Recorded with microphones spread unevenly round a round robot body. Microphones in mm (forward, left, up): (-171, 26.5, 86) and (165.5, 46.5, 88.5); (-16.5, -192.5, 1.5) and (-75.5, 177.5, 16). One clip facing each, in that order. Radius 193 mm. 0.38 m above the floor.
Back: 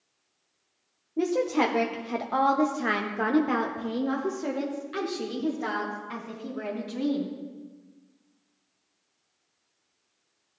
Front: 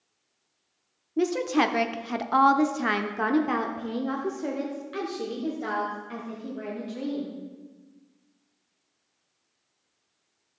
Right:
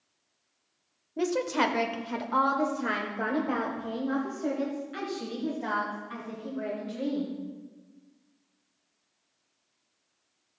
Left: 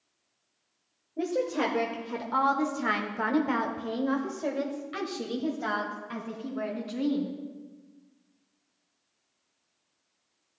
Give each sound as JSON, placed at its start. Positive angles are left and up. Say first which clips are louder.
{"t": 1.2, "sound": "a woman speaking", "louder": "front 1 dB, even", "azimuth_deg": -45, "distance_m": 1.1}